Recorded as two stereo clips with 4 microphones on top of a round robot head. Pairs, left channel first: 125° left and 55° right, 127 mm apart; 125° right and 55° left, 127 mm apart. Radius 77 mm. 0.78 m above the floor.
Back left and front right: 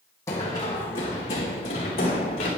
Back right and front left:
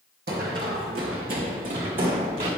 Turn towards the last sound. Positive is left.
turn(degrees=85)